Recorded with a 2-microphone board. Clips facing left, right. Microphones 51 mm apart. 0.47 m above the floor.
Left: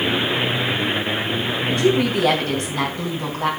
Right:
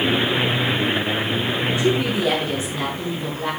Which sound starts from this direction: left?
A woman speaking, at 1.7 s.